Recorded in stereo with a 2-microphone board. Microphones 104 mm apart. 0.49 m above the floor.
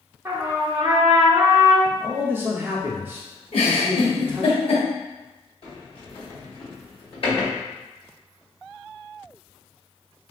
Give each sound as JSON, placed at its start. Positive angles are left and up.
{"t": 0.2, "sound": "a trumpet", "side_deg": -20, "distance_m": 0.9}
{"t": 1.9, "sound": "a man speaking", "side_deg": -20, "distance_m": 0.7}
{"t": 3.5, "sound": "a giggle", "side_deg": 60, "distance_m": 1.2}
{"t": 5.6, "sound": "a sliding door", "side_deg": 55, "distance_m": 1.7}